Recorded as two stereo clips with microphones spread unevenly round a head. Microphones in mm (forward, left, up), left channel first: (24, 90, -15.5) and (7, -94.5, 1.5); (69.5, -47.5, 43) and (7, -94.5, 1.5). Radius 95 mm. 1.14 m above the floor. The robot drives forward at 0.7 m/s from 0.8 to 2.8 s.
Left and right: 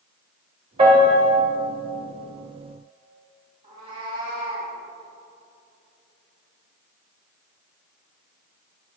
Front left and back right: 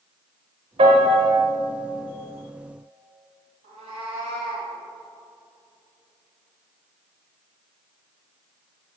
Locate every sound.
0.8 s a piano: 140° right, 1.2 m; by 1.3 s 150° right, 1.4 m
3.6 s a cat meowing: 155° right, 2.0 m